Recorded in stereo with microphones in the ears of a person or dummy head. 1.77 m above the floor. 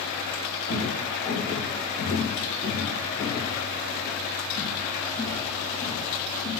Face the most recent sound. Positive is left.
turn(degrees=35)  # may be behind; listen again after turning